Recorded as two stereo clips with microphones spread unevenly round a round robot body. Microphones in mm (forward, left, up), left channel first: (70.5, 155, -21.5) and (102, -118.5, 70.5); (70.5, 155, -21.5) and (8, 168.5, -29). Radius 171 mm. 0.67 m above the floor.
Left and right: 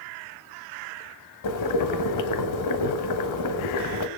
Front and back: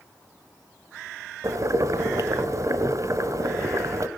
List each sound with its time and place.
1.4 s boiling: 135° left, 1.2 m